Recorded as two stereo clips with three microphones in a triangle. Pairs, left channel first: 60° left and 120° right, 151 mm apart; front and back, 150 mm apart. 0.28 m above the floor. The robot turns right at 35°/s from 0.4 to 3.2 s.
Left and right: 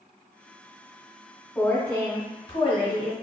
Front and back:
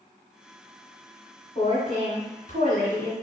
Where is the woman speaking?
15° right, 1.3 m; by 3.1 s 40° left, 1.3 m.